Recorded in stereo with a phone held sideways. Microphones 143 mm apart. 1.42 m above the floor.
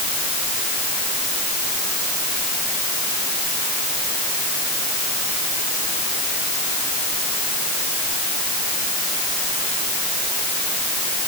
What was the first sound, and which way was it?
Only background noise.